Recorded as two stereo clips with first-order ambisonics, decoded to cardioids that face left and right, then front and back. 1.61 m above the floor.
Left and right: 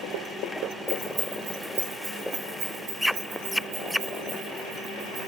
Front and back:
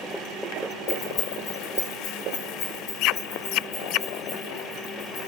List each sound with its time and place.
0.9 s keys jangling: 10° right, 2 m; by 5.3 s 45° right, 6.5 m